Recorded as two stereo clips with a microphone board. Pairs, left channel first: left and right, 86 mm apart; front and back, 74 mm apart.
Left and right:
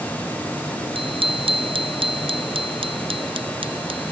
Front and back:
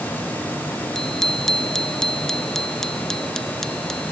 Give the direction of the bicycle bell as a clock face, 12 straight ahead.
3 o'clock.